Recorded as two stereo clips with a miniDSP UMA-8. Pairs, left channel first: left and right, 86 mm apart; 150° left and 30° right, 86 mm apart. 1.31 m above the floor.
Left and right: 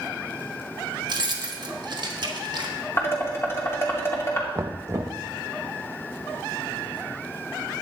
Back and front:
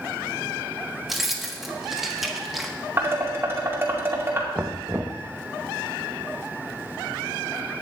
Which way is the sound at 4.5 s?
75° right.